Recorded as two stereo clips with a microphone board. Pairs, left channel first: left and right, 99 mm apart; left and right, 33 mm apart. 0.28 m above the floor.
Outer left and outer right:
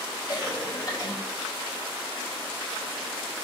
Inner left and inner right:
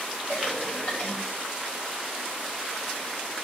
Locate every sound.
0.3 s a cough: 45° left (ahead or behind), 1.8 m